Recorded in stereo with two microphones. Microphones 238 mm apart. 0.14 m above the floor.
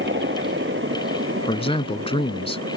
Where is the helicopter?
50° right (ahead or behind); by 2.8 s 60° right (ahead or behind).